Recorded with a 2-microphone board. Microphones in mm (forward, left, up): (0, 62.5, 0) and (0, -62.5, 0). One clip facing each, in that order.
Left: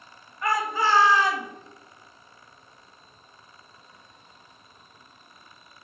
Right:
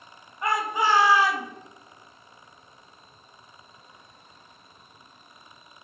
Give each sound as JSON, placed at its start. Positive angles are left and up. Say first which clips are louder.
{"t": 0.4, "sound": "a shout", "louder": "even", "side_deg": -25, "distance_m": 1.8}